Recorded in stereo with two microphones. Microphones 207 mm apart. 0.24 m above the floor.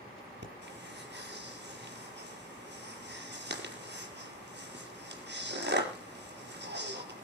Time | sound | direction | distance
0.4 | breathing | 55° right (ahead or behind) | 4.5 m